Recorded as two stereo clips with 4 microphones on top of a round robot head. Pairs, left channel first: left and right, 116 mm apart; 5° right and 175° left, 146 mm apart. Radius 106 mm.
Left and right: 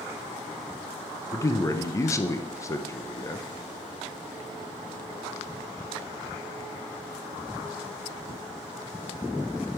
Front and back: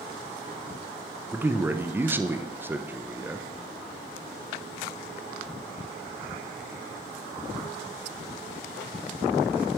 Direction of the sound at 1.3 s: 115° left.